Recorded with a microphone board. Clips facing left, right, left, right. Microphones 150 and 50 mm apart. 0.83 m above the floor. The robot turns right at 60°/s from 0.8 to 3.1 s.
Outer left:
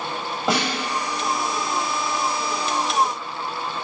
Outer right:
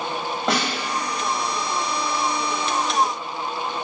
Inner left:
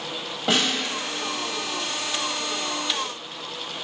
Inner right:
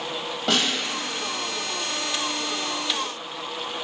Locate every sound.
0.5 s a snare drum: 5° left (ahead or behind), 1.9 m